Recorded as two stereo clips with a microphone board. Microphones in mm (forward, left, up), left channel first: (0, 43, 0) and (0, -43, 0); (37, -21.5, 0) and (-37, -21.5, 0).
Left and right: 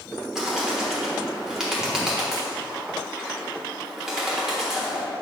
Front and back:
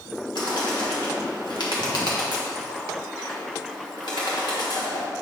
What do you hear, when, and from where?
0.3 s a bird: 5° right, 1.3 m